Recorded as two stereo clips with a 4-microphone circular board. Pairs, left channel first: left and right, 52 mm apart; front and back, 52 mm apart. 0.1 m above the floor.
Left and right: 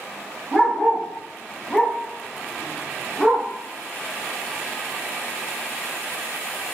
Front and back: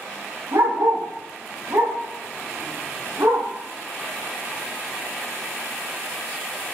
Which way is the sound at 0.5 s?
175° left.